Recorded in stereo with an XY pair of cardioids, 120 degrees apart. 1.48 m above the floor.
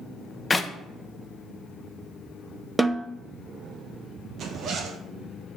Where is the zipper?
50° right, 1.4 m.